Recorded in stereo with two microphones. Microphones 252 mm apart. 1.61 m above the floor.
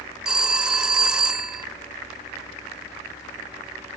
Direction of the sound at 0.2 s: 5° right (ahead or behind).